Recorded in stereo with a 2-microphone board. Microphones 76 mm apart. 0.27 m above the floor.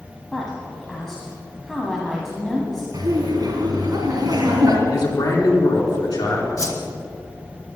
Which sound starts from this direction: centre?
A woman speaking, at 0.3 s.